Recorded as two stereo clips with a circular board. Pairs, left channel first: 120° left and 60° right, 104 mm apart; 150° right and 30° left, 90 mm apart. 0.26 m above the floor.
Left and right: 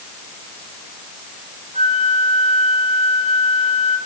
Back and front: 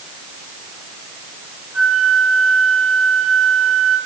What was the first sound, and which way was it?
A flute, 120° left.